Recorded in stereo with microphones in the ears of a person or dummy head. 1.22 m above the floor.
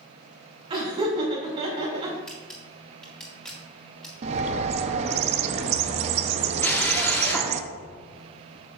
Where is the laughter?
40° right (ahead or behind), 2 m.